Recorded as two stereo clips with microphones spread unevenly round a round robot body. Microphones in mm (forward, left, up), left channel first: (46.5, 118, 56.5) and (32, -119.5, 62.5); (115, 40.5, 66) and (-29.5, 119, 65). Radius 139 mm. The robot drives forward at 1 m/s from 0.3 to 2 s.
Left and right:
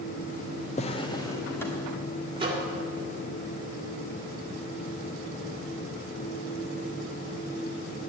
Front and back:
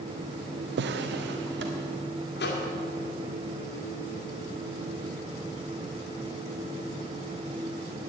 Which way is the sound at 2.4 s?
25° right.